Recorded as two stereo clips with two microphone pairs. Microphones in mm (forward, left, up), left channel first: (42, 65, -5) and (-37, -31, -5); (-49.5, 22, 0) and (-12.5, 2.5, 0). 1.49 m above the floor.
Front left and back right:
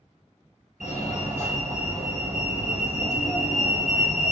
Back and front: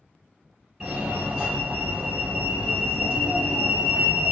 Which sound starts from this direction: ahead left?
A fire alarm, at 0.8 s.